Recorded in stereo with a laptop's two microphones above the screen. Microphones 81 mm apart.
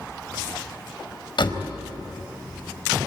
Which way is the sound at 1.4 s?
75° left (ahead or behind).